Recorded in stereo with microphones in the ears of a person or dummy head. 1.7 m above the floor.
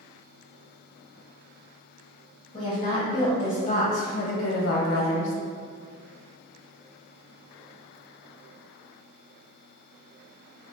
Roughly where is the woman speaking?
Left.